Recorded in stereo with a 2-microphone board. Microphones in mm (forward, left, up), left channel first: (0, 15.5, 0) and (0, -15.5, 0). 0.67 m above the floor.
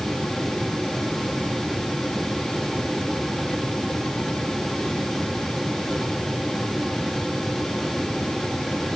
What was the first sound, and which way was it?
Only background noise.